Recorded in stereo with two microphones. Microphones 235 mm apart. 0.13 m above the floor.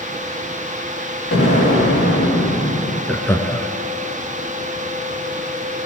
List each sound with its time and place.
1.3 s an explosion: 70° left (ahead or behind), 4 m
3.1 s laughter: 10° left (ahead or behind), 1.2 m